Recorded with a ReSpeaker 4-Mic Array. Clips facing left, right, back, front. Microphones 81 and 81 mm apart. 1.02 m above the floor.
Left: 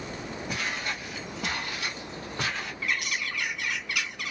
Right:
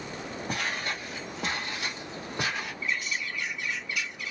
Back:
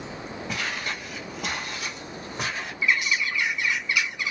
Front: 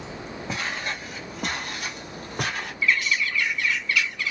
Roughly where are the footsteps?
Ahead right.